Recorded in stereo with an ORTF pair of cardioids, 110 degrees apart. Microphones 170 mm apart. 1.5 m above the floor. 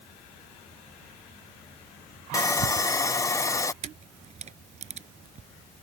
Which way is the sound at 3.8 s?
40° right.